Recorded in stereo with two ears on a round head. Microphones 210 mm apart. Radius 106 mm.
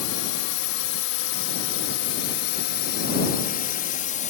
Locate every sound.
0.0 s a drone: 65° left (ahead or behind); by 4.3 s 30° left (ahead or behind)